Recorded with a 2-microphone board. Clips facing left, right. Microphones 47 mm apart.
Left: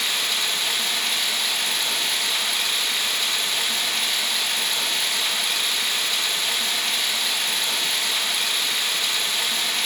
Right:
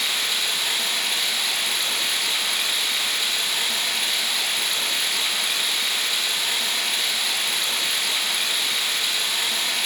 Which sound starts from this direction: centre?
Running water, at 0.0 s.